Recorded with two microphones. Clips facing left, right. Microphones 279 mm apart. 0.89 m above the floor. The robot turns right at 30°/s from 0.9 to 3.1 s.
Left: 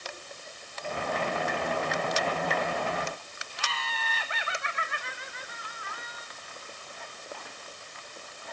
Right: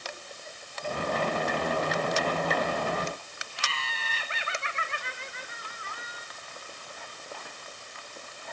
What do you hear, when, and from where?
3.6 s laughter: 30° right (ahead or behind), 1.3 m